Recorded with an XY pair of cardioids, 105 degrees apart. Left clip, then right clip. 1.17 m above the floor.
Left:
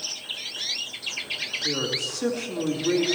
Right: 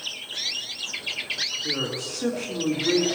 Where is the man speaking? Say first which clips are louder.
Left 2 dB; 15° left, 3.5 m.